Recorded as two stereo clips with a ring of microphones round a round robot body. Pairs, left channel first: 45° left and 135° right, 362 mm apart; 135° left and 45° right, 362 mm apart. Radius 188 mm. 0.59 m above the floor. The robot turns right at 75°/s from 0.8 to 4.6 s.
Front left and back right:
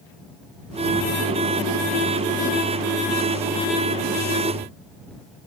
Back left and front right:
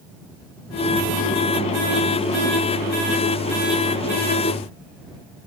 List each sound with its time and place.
Only background noise.